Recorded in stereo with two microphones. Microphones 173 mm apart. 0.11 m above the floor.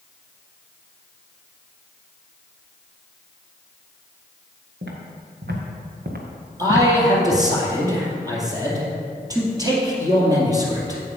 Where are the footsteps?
90° right, 3 m; by 7.4 s 35° right (ahead or behind), 1.6 m.